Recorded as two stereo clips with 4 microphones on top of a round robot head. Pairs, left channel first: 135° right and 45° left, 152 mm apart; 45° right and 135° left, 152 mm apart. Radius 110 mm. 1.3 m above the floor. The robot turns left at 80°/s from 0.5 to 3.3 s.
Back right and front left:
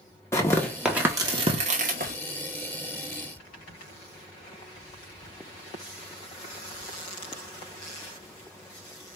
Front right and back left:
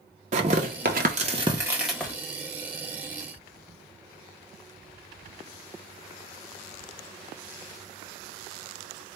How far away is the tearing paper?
About 0.7 m.